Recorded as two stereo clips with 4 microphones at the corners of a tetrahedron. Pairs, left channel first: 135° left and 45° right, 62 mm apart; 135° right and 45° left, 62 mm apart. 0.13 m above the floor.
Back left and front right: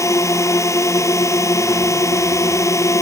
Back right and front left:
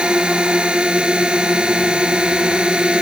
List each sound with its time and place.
0.0 s a drone: 120° left